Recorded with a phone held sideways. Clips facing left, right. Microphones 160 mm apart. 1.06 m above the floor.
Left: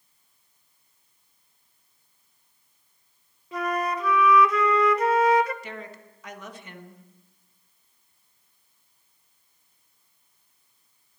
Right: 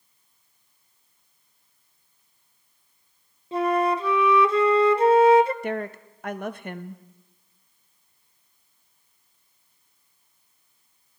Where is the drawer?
I don't hear a drawer.